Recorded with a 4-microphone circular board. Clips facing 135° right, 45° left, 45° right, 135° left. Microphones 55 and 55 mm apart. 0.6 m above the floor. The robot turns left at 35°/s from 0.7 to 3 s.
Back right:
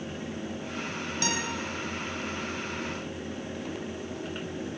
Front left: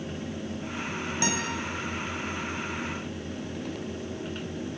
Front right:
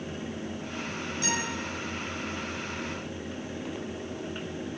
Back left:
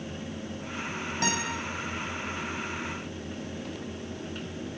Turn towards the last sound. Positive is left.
turn(degrees=55)